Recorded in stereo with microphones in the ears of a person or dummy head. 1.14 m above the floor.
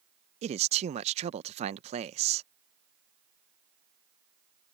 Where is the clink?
I don't hear a clink.